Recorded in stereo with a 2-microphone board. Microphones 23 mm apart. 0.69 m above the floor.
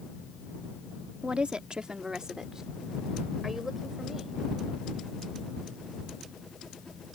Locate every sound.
1.2 s a woman speaking: 50° right (ahead or behind); by 4.4 s 10° right (ahead or behind)